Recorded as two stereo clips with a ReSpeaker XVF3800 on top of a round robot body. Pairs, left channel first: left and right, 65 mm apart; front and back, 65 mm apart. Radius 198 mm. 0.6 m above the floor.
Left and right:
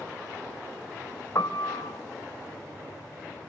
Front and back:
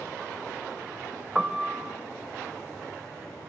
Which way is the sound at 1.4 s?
110° left.